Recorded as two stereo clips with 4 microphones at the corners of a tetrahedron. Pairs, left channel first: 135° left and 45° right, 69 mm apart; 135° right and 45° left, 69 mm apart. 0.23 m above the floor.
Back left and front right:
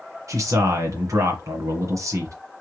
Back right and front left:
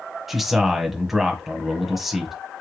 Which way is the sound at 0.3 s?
45° right.